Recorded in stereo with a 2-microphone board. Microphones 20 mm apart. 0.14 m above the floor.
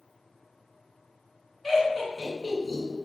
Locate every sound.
1.6 s laughter: 10° left (ahead or behind), 1.6 m